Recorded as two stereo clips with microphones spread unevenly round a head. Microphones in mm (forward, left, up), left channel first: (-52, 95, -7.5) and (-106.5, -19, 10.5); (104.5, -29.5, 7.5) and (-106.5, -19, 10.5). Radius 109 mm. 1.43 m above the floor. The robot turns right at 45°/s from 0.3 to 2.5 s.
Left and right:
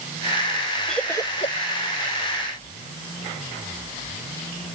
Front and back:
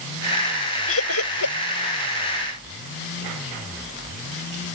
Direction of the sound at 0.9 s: 25° right.